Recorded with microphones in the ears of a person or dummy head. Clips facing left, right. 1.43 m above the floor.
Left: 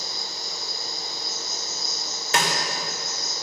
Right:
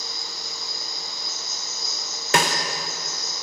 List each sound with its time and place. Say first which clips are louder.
0.0 s an insect: left 2 dB; 35° right (ahead or behind), 1.4 m
2.3 s a snare drum: right 3 dB; 55° right (ahead or behind), 0.9 m